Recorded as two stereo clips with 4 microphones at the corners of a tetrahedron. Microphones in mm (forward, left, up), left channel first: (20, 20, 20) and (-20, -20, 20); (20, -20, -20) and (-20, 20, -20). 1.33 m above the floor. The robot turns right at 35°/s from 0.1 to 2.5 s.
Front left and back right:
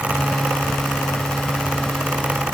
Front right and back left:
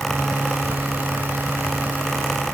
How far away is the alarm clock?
No alarm clock in this recording.